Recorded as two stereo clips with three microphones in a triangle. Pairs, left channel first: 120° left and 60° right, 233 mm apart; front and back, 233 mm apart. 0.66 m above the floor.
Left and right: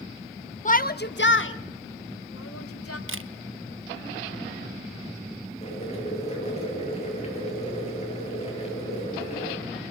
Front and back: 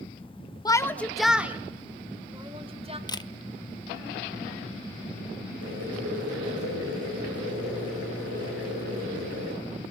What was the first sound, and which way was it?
A shout, 70° left.